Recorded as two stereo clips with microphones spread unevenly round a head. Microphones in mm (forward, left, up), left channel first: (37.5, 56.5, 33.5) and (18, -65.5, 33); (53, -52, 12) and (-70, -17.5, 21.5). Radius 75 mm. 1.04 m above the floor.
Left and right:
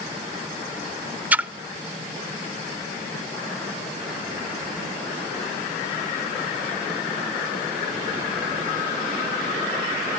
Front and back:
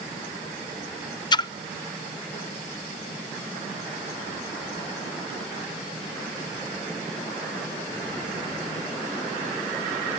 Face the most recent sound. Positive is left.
turn(degrees=-30)